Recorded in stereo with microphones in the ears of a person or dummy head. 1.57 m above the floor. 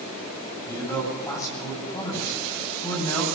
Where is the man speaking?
15° left (ahead or behind), 9.5 m.